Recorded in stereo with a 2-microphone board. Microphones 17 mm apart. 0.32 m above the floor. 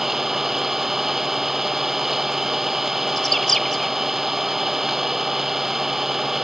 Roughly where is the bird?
Centre.